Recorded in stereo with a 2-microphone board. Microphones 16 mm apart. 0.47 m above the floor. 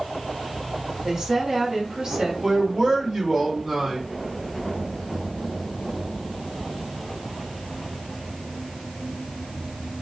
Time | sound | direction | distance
1.0 | a woman speaking | 50° right (ahead or behind) | 2.5 m
2.4 | a man speaking | 45° right (ahead or behind) | 1.7 m